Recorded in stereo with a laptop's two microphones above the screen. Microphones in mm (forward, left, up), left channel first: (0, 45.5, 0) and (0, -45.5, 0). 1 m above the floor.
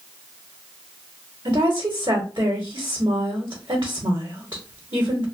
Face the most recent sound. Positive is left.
turn(degrees=-50)  # may be behind; listen again after turning